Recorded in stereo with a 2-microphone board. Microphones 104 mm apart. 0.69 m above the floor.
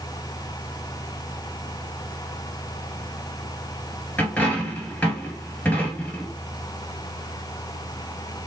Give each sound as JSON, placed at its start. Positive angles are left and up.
{"t": 4.2, "sound": "a dropped coin", "side_deg": 10, "distance_m": 1.8}